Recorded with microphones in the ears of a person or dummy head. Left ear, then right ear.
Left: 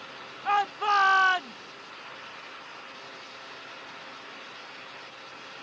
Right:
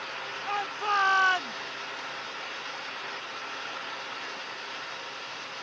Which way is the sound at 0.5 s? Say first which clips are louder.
Left 5 dB; 30° left (ahead or behind).